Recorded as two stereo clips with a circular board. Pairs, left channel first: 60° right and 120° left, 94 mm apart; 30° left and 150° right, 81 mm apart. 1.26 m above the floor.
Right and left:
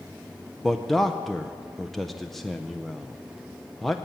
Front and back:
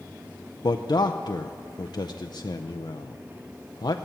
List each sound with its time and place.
0.6 s a man speaking: 30° left, 0.6 m